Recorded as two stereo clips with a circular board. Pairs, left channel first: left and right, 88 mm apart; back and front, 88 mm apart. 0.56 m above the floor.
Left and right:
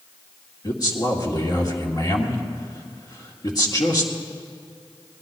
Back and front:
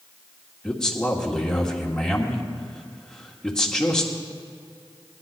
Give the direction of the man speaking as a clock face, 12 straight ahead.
9 o'clock.